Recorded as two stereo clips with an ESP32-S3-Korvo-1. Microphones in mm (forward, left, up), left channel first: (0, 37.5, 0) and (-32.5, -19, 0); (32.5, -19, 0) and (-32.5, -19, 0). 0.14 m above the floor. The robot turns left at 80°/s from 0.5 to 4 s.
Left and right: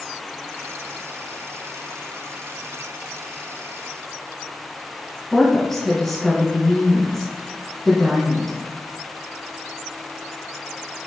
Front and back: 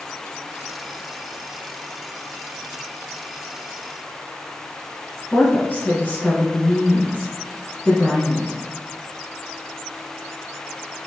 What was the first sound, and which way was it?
A woman speaking, 20° right.